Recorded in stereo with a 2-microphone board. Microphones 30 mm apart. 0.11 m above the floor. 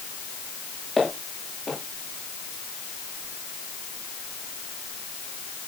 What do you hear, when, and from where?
1.0 s footsteps: 5° left (ahead or behind), 6.5 m